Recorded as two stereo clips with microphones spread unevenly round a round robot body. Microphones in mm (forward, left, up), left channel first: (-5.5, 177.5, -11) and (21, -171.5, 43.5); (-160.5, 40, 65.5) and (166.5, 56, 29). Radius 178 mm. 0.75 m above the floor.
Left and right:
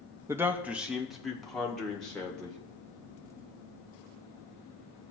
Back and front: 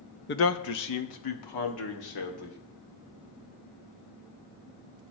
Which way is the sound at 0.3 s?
175° right.